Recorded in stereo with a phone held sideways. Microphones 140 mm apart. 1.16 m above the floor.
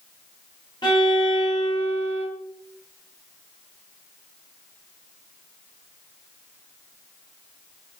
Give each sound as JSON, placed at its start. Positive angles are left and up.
{"t": 0.8, "sound": "a violin", "side_deg": 35, "distance_m": 1.5}